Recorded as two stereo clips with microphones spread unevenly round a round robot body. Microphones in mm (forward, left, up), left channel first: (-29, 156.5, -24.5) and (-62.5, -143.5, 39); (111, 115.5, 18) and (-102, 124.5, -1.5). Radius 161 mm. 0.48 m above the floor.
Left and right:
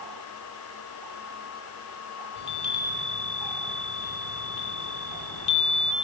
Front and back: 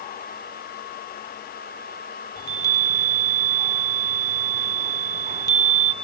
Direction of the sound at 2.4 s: 70° left.